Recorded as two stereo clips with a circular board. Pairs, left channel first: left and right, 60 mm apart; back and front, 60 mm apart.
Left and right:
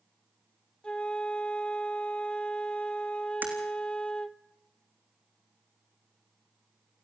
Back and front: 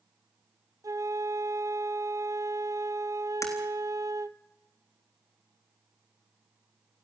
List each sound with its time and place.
0.8 s a flute: 20° left, 0.7 m
3.4 s breaking glass: 150° right, 4 m